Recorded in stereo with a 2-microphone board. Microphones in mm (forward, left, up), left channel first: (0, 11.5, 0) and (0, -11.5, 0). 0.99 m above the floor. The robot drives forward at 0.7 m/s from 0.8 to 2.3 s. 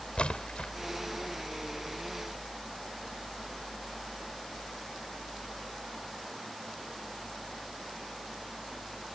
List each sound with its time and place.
0.2 s a splash: 55° left (ahead or behind)